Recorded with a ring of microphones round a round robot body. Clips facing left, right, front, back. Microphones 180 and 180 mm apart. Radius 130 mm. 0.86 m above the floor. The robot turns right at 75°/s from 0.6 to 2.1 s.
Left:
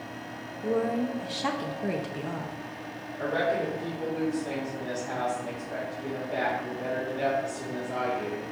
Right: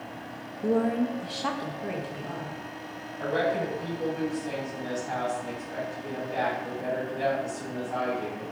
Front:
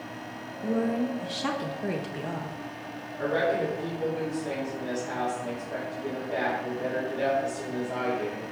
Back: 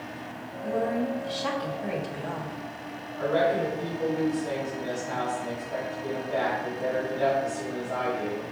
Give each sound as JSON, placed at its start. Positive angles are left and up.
{"t": 0.6, "sound": "a woman speaking", "azimuth_deg": -50, "distance_m": 0.7}
{"t": 3.2, "sound": "a woman speaking", "azimuth_deg": 65, "distance_m": 3.0}